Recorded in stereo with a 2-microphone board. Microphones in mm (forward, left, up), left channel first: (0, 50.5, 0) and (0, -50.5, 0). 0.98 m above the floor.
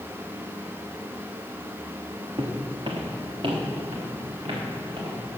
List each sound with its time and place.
2.4 s footsteps: 50° right (ahead or behind), 2.5 m